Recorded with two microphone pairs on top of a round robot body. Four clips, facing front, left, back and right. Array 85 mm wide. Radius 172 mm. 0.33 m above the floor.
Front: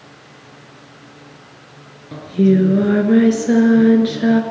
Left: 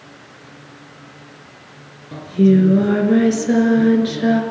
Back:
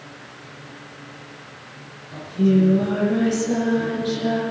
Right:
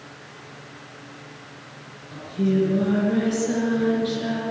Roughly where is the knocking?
No knocking in this recording.